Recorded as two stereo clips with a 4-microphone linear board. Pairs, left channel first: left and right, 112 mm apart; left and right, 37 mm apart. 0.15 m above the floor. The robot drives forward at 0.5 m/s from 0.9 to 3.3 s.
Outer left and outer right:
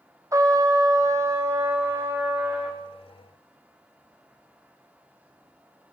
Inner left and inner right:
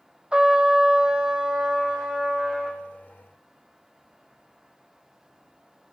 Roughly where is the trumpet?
Right.